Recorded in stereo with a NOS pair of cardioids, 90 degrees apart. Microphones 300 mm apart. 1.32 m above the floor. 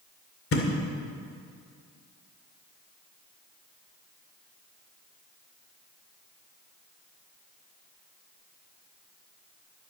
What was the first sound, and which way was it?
A thud, 50° left.